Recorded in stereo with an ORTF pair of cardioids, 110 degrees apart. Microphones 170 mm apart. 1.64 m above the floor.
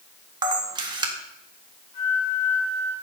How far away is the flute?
About 4 m.